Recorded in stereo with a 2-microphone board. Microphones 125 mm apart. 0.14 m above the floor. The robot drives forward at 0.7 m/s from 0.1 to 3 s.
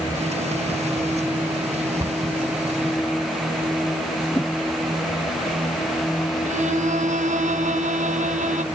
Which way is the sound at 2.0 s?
30° right (ahead or behind).